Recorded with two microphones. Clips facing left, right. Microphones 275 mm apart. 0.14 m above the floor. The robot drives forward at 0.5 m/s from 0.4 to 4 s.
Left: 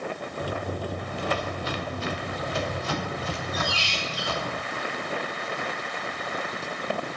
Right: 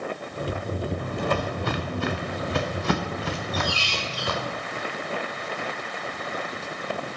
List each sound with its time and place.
1.0 s footsteps: 55° right (ahead or behind), 0.8 m; by 4.5 s 85° right, 2 m
3.5 s a squeak: 25° left (ahead or behind), 1.7 m; by 4.4 s 20° left (ahead or behind), 1.9 m